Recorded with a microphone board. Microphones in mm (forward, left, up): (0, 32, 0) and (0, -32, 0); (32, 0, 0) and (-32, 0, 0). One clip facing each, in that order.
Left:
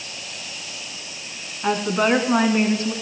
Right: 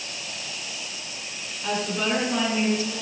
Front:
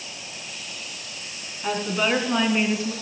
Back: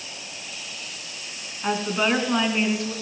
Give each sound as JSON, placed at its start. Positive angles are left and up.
{"t": 1.6, "sound": "a woman speaking", "azimuth_deg": 120, "distance_m": 2.0}